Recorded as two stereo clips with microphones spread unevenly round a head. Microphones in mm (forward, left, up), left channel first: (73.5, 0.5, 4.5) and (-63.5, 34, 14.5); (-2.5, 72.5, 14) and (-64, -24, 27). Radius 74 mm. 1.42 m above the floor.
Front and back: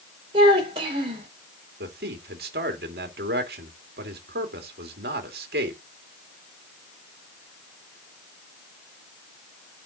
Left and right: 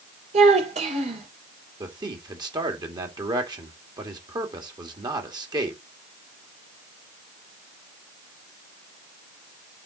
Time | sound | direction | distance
0.3 | a child speaking | 140° right | 3.5 m
1.8 | a man speaking | 170° right | 2.5 m